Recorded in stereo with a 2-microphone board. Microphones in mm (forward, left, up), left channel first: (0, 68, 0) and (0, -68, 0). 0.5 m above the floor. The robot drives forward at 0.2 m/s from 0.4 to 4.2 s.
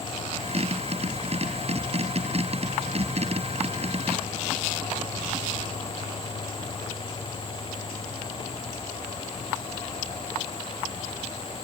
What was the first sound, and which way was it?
Only background noise.